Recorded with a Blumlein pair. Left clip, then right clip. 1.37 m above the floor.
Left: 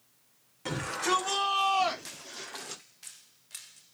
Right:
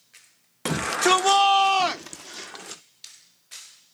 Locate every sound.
0.7 s a shout: 55° right, 1.5 m; by 2.8 s 10° right, 1.4 m